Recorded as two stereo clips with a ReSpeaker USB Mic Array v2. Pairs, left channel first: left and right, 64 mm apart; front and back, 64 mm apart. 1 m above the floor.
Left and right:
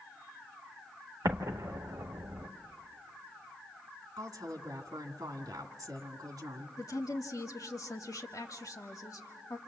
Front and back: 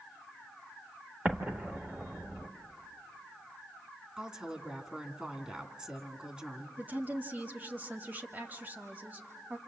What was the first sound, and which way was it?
An explosion, 120° right.